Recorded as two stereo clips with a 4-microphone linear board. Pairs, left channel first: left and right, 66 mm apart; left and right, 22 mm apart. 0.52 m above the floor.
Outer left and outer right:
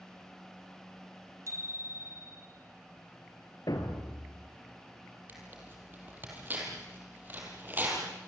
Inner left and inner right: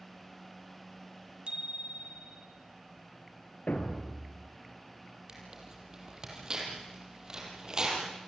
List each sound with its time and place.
1.5 s a bicycle bell: 50° right (ahead or behind), 2.5 m
3.7 s a thud: 80° left, 3 m
5.3 s tearing paper: 30° right (ahead or behind), 5.5 m